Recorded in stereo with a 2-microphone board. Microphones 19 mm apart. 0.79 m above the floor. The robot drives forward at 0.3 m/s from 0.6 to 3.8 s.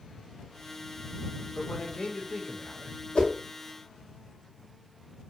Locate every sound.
1.6 s a man speaking: 60° left (ahead or behind), 0.8 m; by 3.0 s 45° left (ahead or behind), 1.0 m
3.1 s a whoosh: 60° left (ahead or behind), 0.7 m; by 3.3 s 55° left (ahead or behind), 0.7 m